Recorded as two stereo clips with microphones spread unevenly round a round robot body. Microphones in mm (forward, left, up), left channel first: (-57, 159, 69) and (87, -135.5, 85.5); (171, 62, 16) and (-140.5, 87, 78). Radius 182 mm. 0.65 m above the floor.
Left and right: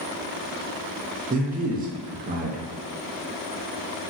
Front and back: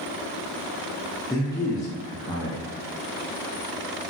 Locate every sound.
1.3 s a man speaking: 35° right, 0.5 m